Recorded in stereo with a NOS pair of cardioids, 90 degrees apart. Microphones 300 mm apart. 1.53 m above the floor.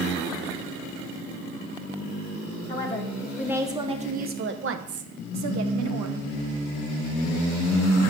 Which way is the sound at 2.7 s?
15° left.